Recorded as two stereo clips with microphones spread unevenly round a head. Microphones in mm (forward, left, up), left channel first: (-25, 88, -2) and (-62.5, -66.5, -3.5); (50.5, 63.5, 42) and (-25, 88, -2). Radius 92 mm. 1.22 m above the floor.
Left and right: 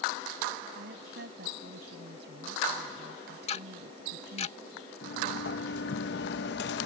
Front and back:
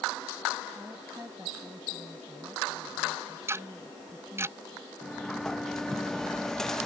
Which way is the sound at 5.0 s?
55° left.